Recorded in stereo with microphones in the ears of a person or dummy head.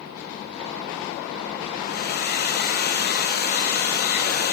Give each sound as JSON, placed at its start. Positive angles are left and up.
{"t": 1.8, "sound": "a hair dryer", "side_deg": 50, "distance_m": 1.5}